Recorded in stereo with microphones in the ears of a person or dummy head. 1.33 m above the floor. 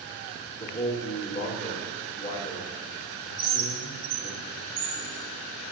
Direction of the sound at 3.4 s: 70° right (ahead or behind).